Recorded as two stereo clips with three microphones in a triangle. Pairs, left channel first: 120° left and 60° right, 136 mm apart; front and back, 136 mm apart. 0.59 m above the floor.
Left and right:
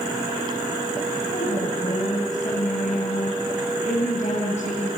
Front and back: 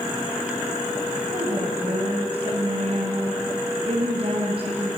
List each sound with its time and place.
1.3 s a woman speaking: 135° left, 3 m